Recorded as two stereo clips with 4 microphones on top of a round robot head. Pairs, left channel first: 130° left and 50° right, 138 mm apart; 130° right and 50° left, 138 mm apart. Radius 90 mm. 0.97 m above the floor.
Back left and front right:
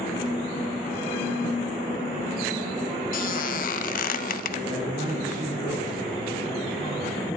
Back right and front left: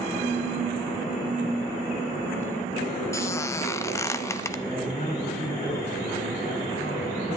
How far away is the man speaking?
About 6 m.